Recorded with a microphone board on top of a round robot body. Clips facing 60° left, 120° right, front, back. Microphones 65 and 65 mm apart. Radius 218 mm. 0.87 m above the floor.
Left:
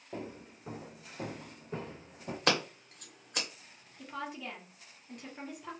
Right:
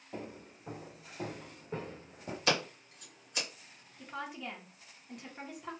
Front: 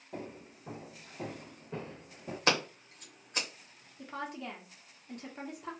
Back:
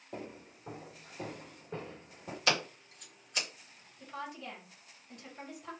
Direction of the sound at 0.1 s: 100° left.